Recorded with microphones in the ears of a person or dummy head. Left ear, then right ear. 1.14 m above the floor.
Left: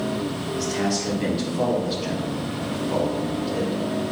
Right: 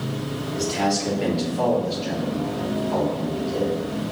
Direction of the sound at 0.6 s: 20° right (ahead or behind).